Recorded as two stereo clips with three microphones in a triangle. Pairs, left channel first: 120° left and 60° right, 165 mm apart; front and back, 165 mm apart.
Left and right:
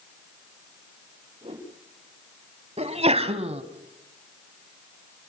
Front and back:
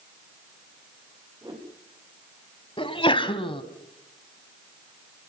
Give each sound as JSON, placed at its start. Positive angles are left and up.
{"t": 1.4, "sound": "a whoosh", "azimuth_deg": -115, "distance_m": 6.0}
{"t": 2.8, "sound": "a sneeze", "azimuth_deg": -40, "distance_m": 1.7}